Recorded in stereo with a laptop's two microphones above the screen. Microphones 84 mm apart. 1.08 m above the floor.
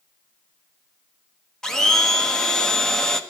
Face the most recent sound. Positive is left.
turn(degrees=5)  # may be behind; listen again after turning